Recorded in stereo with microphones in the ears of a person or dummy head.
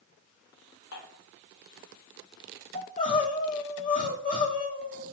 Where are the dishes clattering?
70° left (ahead or behind), 3.5 m.